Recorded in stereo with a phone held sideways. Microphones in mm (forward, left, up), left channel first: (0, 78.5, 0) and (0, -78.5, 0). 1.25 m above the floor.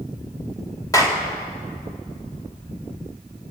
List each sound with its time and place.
0.9 s a clap: 25° left (ahead or behind), 2.5 m